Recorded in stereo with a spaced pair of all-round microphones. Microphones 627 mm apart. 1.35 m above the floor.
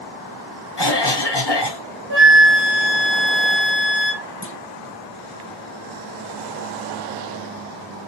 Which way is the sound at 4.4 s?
20° left (ahead or behind).